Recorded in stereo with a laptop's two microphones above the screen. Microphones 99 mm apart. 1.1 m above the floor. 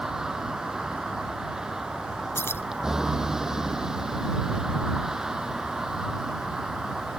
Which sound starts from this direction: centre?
A vehicle, at 0.0 s.